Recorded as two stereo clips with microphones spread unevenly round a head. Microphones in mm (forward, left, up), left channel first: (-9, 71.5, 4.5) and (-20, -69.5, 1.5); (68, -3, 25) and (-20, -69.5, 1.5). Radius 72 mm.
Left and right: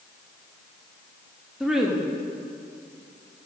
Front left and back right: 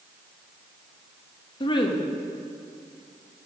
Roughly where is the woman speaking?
Ahead.